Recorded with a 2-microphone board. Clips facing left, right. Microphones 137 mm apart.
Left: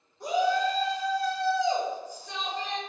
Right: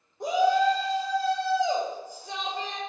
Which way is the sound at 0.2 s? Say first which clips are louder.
Right 3 dB; 45° right (ahead or behind).